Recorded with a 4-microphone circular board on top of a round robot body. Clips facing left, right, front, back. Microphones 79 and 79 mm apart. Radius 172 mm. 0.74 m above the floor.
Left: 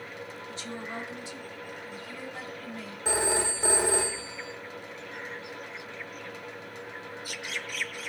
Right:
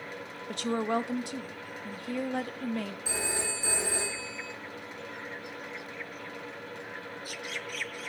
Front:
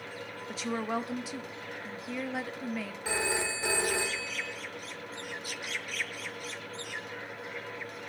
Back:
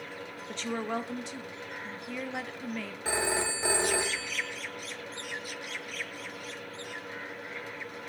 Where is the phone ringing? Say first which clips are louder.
Left 6 dB, back 2 dB; 120° left, 1.5 m.